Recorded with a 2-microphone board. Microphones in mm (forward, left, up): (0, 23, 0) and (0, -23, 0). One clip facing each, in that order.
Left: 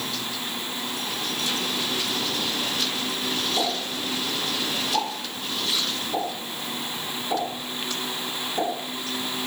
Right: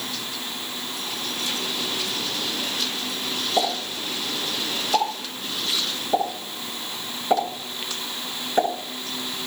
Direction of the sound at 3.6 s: 50° right (ahead or behind).